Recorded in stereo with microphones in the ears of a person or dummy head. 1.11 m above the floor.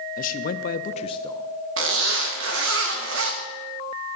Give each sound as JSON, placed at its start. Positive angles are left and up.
{"t": 0.2, "sound": "a man speaking", "side_deg": 45, "distance_m": 1.0}
{"t": 1.8, "sound": "a zipper", "side_deg": -65, "distance_m": 1.8}